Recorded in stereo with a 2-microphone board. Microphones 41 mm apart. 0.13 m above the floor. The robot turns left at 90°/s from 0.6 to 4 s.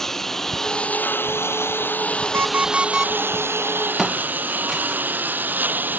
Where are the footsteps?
5° right (ahead or behind).